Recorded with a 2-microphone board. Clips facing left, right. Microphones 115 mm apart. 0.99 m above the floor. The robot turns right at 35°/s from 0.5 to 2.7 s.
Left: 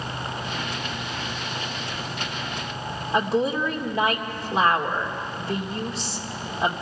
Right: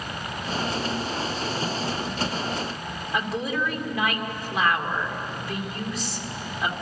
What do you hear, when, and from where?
3.1 s a woman speaking: 30° left (ahead or behind), 2 m